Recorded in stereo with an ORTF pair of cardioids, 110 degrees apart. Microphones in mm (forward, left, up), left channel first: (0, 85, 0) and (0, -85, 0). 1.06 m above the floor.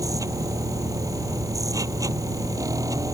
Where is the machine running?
20° right.